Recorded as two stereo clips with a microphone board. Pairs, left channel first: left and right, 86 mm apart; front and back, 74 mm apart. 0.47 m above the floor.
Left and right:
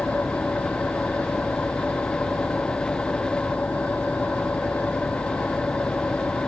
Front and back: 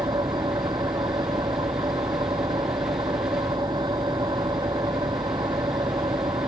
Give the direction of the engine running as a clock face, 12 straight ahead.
6 o'clock.